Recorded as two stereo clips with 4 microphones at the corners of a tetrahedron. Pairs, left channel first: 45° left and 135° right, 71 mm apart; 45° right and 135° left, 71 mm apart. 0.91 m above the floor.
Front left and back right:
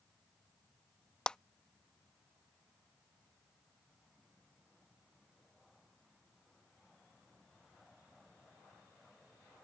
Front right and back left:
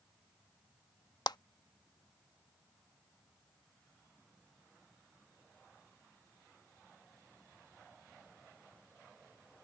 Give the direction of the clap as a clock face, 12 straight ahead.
1 o'clock.